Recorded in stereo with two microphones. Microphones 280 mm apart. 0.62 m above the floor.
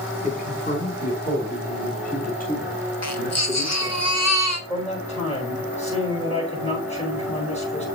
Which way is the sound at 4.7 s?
25° left (ahead or behind).